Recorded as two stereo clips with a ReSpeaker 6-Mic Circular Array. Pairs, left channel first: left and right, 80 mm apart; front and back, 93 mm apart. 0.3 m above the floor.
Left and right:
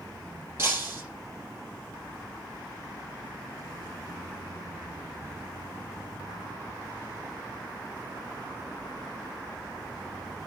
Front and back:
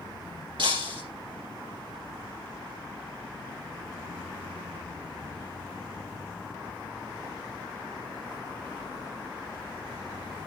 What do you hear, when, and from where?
0.6 s breaking glass: 150° right, 4 m